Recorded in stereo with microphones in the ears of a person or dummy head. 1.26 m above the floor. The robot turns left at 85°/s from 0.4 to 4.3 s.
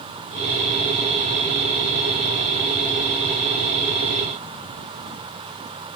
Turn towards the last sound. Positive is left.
No sound to turn to.